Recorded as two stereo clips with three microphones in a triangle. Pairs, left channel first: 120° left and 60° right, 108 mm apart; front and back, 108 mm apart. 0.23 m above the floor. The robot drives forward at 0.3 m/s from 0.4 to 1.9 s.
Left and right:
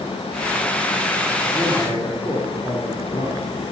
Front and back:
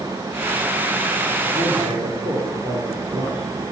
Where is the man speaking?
175° left, 3 m.